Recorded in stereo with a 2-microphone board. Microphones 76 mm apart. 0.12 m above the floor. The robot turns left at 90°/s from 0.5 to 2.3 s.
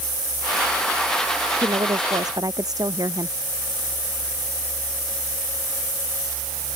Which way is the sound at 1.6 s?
60° right.